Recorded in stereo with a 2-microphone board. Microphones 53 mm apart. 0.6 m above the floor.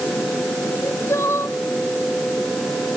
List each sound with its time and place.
0.7 s crying: 55° left (ahead or behind)